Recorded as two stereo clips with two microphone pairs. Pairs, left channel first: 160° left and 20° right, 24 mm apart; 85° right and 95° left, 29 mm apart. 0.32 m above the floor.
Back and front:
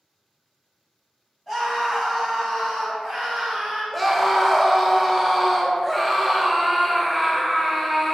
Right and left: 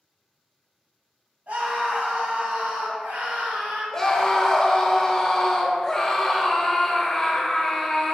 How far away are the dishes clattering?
I don't hear dishes clattering.